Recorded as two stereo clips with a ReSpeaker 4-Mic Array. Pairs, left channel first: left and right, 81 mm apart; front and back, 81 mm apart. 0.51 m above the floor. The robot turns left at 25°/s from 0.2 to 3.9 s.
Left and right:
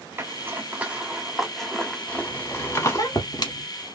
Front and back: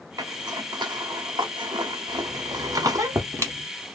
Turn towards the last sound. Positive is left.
turn(degrees=110)